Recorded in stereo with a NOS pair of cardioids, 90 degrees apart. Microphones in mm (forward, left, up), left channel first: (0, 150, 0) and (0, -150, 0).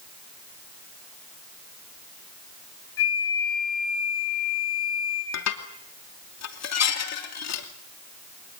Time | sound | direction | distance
3.0 | a flute | 45° left | 4.5 m
5.3 | dishes clattering | 60° left | 2.5 m